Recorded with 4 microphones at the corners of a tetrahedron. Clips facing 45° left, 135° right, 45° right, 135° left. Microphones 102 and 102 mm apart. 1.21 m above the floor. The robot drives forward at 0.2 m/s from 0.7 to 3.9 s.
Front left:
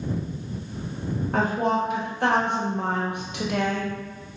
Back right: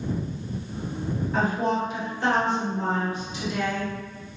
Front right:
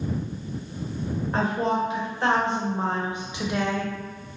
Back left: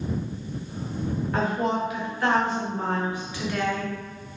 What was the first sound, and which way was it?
A woman speaking, 15° left.